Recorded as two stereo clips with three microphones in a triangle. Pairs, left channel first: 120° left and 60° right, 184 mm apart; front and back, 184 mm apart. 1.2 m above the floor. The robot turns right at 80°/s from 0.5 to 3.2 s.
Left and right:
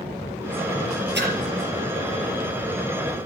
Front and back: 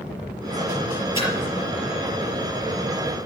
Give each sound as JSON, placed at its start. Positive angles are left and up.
{"t": 1.1, "sound": "a splash", "azimuth_deg": -65, "distance_m": 5.5}